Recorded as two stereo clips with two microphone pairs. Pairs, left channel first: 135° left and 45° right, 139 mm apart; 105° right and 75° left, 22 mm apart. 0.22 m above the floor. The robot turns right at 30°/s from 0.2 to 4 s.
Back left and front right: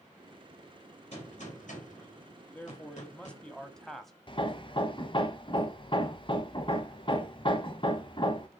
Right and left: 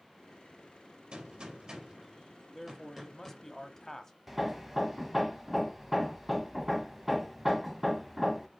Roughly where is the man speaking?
Behind.